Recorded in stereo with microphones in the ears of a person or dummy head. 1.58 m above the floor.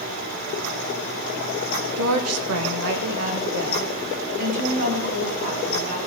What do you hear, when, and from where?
2.0 s a woman speaking: 75° right (ahead or behind), 1.3 m; by 6.0 s 45° right (ahead or behind), 4.5 m